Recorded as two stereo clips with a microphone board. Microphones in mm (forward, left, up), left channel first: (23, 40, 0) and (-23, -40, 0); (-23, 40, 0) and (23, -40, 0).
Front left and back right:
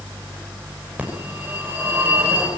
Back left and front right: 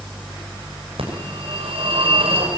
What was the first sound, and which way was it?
A phone ringing, 45° right.